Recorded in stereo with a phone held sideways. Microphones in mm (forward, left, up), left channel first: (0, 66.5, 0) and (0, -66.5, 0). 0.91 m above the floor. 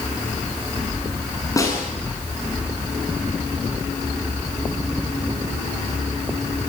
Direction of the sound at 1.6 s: 25° left (ahead or behind).